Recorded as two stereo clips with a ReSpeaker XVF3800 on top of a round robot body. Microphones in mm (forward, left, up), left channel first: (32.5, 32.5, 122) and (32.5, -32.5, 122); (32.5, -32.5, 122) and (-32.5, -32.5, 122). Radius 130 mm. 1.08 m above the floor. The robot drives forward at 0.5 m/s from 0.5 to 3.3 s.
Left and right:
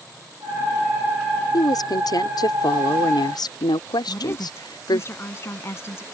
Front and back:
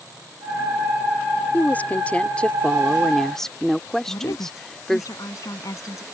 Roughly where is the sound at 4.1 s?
Ahead left.